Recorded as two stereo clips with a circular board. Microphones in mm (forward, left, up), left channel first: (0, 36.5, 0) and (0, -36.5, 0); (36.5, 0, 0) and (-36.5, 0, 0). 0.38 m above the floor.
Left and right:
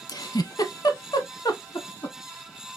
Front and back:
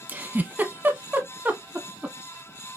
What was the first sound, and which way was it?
A giggle, 115° left.